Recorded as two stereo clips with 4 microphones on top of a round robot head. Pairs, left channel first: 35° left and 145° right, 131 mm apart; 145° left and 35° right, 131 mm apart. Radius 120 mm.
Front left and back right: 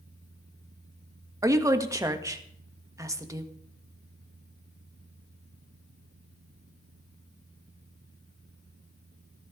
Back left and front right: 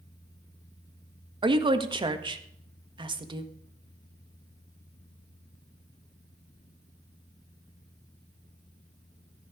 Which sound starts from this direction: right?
A woman speaking, at 1.4 s.